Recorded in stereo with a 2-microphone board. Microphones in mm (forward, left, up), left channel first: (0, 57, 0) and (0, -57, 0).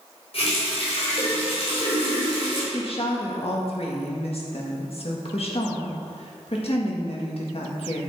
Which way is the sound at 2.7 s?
60° left (ahead or behind).